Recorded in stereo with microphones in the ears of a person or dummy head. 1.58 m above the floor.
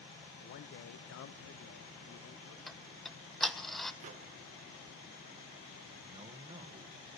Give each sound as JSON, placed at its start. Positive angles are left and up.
{"t": 0.4, "sound": "a man speaking", "side_deg": 55, "distance_m": 1.4}
{"t": 2.7, "sound": "ticking", "side_deg": 0, "distance_m": 0.9}
{"t": 4.0, "sound": "a microwave", "side_deg": -45, "distance_m": 1.0}
{"t": 6.1, "sound": "a man speaking", "side_deg": -35, "distance_m": 1.1}